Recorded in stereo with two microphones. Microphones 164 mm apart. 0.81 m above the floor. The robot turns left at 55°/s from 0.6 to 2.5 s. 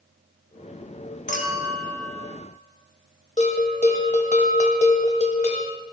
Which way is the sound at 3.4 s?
45° left (ahead or behind).